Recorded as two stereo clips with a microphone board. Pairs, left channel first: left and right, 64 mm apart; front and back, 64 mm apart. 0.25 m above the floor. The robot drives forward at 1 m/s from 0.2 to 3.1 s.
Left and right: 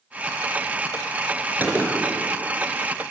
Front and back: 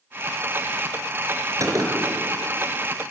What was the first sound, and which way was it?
A gunshot, 150° right.